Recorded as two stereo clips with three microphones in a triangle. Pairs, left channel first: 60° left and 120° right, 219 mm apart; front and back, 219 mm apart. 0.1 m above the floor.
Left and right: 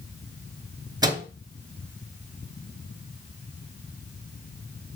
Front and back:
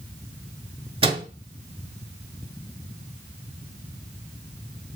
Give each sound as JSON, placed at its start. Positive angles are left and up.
{"t": 1.0, "sound": "a microwave", "azimuth_deg": -165, "distance_m": 0.9}